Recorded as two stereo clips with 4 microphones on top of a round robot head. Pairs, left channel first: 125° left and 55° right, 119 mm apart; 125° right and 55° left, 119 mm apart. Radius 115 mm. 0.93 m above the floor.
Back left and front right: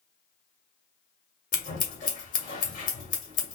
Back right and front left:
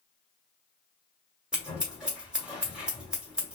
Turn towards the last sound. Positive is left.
turn(degrees=135)